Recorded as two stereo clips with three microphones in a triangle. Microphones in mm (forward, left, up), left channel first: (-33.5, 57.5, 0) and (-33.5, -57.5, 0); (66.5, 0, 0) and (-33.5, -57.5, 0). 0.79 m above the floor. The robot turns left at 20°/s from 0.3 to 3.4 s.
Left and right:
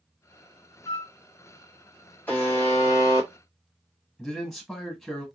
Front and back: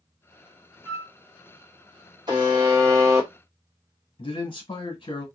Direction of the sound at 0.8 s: 150° left.